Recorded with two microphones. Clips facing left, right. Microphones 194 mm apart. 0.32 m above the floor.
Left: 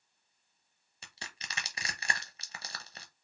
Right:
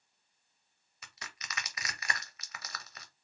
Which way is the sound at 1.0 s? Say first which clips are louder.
Left 1 dB; 30° left (ahead or behind).